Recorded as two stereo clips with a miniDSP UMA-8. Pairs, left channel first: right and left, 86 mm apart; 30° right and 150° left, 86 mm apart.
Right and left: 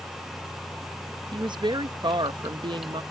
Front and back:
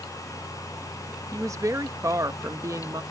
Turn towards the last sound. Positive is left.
turn(degrees=100)